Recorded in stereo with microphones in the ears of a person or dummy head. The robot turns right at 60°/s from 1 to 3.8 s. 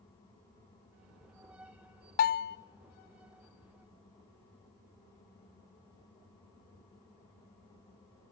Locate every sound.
2.2 s a bell: 45° left (ahead or behind), 0.5 m